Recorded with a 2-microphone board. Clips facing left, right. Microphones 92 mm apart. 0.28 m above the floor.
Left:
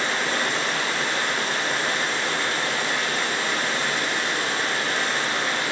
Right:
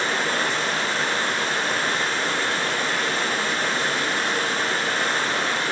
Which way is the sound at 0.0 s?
40° right (ahead or behind).